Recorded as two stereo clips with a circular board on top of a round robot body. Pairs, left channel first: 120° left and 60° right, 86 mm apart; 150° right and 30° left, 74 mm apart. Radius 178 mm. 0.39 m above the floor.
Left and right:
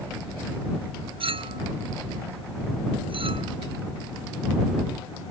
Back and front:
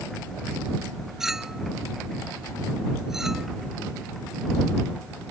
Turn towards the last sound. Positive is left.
turn(degrees=-55)